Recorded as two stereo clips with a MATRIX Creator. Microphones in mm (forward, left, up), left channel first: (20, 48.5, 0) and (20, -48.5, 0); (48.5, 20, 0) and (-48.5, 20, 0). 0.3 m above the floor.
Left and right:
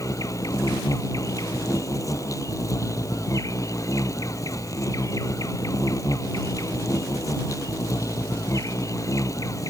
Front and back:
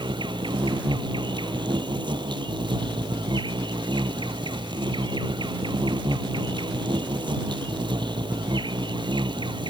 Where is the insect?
145° left.